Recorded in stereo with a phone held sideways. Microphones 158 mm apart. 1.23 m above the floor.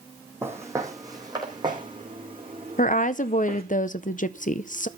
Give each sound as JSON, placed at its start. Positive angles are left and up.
{"t": 0.4, "sound": "footsteps", "side_deg": -15, "distance_m": 3.0}
{"t": 2.8, "sound": "a woman speaking", "side_deg": 55, "distance_m": 0.7}